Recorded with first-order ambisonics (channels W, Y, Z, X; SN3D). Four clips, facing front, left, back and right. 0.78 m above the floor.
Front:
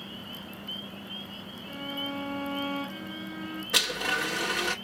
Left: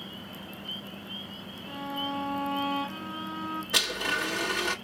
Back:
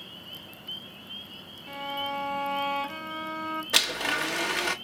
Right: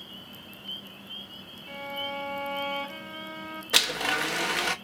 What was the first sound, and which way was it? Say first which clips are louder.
A violin: left 1 dB, back 3 dB; 165° right.